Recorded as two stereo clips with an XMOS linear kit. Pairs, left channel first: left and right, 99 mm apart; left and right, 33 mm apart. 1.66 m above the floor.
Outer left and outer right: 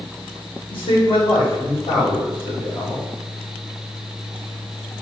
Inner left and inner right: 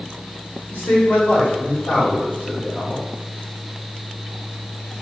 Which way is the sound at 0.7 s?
65° left (ahead or behind).